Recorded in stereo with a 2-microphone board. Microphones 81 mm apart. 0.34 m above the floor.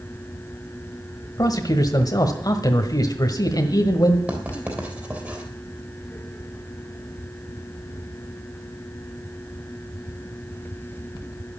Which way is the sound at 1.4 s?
50° left (ahead or behind).